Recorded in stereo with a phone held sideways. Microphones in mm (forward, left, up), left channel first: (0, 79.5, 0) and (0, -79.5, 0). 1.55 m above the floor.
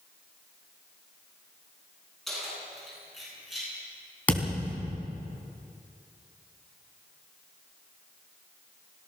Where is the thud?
10° left (ahead or behind), 3.5 m.